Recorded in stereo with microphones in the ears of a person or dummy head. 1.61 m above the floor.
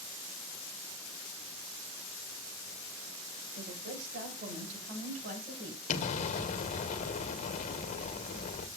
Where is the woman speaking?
65° right (ahead or behind), 7 m; by 5.8 s 45° right (ahead or behind), 7 m.